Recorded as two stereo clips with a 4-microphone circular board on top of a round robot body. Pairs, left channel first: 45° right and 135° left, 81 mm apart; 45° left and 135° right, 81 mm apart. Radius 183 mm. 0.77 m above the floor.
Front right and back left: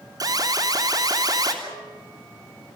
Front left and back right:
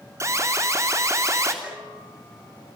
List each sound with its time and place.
0.2 s an alarm: 175° left, 3.5 m
1.6 s a bell: 140° left, 6 m